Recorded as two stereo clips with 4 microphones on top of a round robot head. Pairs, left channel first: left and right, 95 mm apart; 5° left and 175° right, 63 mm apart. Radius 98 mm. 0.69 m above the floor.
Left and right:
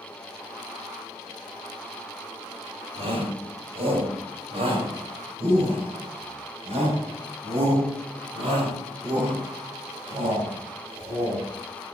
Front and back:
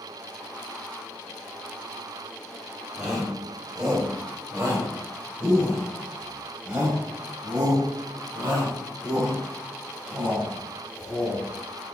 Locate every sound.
3.0 s a shout: 100° right, 4 m; by 11.4 s 105° right, 8 m